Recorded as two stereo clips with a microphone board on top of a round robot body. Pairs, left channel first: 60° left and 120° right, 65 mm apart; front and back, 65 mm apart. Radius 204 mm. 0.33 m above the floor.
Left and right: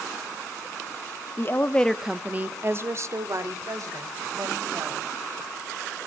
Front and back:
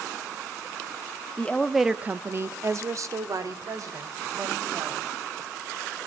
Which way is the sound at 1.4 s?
55° left.